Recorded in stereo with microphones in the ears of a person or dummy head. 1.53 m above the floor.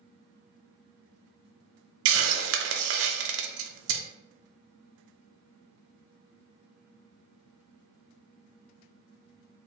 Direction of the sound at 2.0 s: 80° right.